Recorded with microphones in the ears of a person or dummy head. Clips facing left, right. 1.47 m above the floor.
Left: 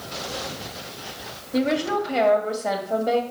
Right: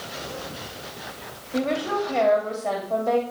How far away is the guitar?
No guitar in this recording.